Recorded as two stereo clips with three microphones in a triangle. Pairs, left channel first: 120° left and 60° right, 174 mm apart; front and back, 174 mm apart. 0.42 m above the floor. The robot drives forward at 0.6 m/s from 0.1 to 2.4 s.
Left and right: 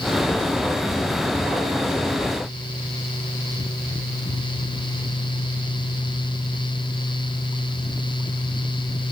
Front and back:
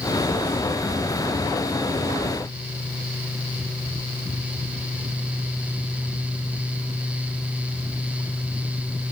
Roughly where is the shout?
No shout in this recording.